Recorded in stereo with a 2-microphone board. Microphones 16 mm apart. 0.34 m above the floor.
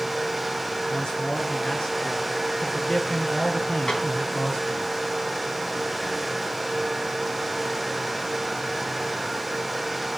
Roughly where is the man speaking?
Left.